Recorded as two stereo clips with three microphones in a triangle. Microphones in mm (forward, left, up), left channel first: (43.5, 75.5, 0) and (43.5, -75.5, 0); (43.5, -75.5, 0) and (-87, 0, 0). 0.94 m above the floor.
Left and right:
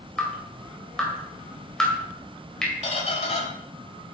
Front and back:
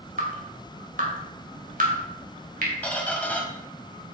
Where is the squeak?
50° left, 1.4 m.